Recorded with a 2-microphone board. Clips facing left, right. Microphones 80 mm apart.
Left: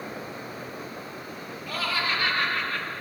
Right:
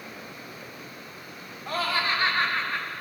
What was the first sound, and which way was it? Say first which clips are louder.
Laughter: right 2 dB; 45° right (ahead or behind).